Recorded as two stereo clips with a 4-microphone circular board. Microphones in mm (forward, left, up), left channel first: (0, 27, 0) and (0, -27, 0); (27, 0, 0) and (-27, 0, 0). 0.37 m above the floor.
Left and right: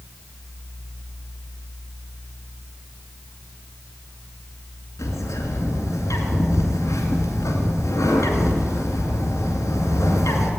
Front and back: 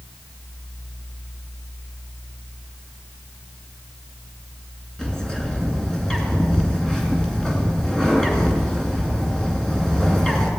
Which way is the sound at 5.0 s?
80° left.